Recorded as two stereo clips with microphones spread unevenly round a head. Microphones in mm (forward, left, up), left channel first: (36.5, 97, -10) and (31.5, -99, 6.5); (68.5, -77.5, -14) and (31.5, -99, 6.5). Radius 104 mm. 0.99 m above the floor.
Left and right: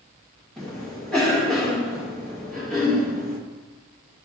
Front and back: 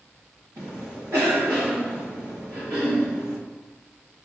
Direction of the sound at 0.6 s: 175° left.